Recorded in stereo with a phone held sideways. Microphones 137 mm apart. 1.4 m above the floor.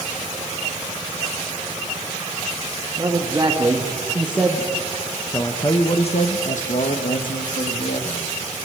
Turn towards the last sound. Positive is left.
turn(degrees=90)